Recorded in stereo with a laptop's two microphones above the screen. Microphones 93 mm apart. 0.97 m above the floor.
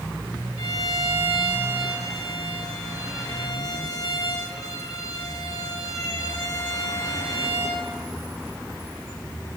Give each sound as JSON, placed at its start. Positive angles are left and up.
{"t": 0.6, "sound": "a violin", "side_deg": 40, "distance_m": 3.0}